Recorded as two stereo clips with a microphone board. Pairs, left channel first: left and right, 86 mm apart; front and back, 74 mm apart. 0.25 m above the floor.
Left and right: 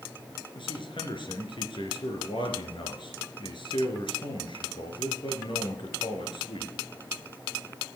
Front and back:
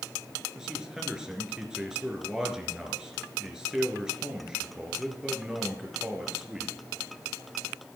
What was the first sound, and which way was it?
A man speaking, 100° left.